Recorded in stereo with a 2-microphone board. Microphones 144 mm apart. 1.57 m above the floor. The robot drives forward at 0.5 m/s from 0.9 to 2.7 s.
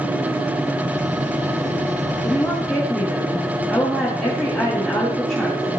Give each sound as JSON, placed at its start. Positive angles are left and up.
{"t": 2.2, "sound": "a woman speaking", "side_deg": 10, "distance_m": 4.5}